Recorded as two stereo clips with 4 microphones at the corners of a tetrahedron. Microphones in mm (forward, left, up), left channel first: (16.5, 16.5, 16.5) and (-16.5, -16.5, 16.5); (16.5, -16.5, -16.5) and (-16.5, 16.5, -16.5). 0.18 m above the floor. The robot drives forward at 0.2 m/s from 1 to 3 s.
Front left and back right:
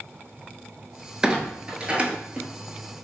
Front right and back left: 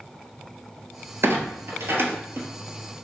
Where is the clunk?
155° left, 0.6 m; by 2.5 s 160° left, 0.8 m.